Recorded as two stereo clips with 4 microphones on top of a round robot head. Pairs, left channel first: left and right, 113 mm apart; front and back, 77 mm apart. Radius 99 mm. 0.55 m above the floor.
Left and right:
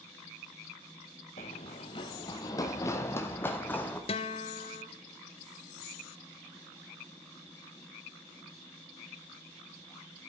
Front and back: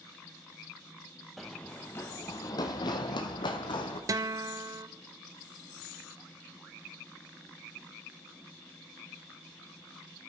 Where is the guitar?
135° left, 0.6 m.